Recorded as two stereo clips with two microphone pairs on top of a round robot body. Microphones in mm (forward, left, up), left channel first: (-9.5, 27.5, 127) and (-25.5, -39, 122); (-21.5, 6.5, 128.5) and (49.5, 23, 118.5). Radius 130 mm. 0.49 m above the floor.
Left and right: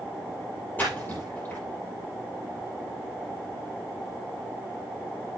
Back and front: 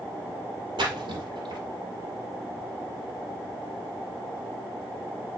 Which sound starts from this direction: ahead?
A splash, at 0.8 s.